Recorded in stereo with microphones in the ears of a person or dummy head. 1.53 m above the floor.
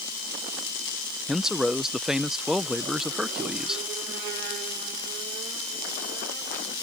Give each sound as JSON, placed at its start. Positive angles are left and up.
{"t": 1.3, "sound": "a man speaking", "side_deg": 0}